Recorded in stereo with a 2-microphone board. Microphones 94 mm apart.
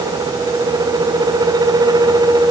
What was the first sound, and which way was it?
Only background noise.